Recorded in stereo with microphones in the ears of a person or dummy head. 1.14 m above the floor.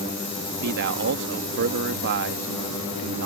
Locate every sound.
0.6 s a man speaking: 55° right (ahead or behind)